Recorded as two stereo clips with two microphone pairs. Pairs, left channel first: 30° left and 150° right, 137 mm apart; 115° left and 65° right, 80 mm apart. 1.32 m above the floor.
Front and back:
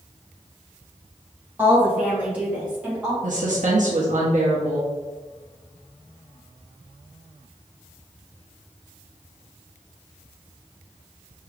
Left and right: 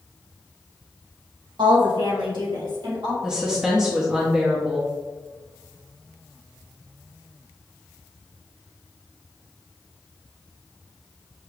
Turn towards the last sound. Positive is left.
turn(degrees=-145)